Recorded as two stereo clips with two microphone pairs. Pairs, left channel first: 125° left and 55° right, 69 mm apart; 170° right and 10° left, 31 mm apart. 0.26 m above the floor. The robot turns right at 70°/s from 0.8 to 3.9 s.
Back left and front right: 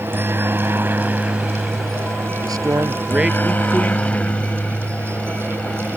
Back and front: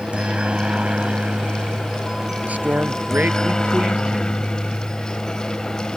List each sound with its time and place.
0.0 s a helicopter: 20° right; by 6.0 s 150° left
2.4 s a man speaking: 35° right; by 4.4 s 70° left